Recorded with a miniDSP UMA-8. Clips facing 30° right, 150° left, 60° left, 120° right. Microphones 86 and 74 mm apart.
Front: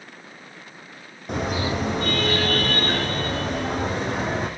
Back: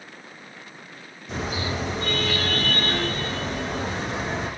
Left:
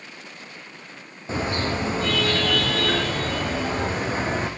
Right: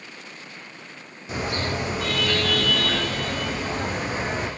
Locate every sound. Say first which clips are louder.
1.3 s a car horn: front 4 dB, left 2 dB; straight ahead, 7.5 m; by 4.5 s 5° left, 10 m